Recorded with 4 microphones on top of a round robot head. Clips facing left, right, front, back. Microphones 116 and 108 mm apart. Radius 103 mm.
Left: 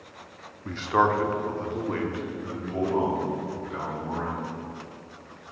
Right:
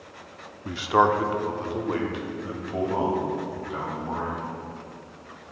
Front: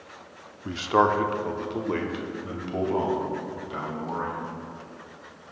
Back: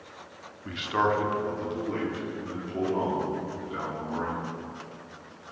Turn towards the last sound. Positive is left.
turn(degrees=-20)